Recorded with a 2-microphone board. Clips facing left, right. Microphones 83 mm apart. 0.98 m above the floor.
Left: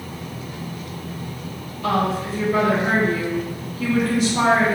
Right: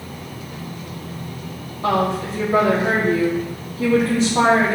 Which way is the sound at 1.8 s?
30° right (ahead or behind).